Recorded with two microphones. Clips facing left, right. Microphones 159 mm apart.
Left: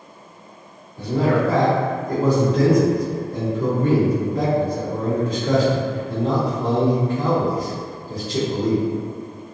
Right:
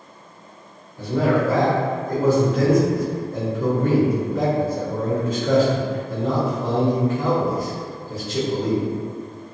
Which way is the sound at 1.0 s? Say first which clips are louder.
Even; 35° left (ahead or behind).